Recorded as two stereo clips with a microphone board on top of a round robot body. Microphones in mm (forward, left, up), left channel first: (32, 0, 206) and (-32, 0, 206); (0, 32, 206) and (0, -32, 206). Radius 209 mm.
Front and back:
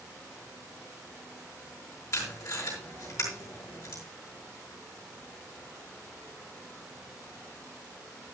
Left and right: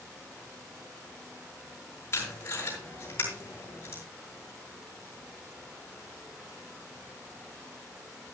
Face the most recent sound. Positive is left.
turn(degrees=35)